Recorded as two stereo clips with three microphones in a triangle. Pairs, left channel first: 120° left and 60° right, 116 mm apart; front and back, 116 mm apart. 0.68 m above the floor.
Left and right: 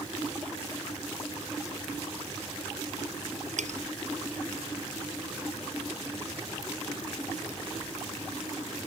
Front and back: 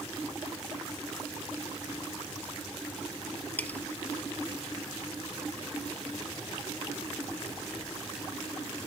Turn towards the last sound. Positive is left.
turn(degrees=-75)